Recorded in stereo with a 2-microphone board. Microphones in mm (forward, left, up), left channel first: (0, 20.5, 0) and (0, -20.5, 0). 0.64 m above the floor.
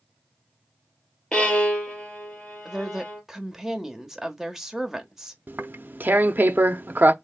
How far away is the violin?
About 2 m.